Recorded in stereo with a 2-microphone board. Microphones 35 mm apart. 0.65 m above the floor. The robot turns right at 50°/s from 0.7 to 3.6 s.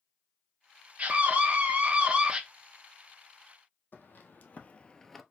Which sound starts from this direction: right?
A scream, at 1.0 s.